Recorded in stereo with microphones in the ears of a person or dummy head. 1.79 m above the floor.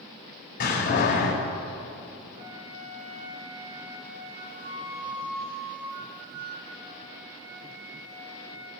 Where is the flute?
45° right (ahead or behind), 2.5 m.